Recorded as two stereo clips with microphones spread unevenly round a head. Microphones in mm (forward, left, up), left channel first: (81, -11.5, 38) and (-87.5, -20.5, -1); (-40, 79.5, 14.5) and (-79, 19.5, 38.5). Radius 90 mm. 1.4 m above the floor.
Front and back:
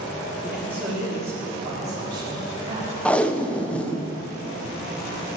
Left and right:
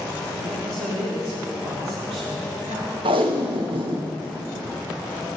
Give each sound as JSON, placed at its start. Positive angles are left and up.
{"t": 0.4, "sound": "a man speaking", "azimuth_deg": -95, "distance_m": 4.0}
{"t": 3.0, "sound": "tape being pulled", "azimuth_deg": -85, "distance_m": 0.9}